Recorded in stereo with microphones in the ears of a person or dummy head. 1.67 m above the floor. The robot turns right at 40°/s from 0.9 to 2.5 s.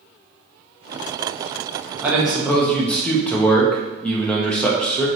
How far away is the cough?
I don't hear a cough.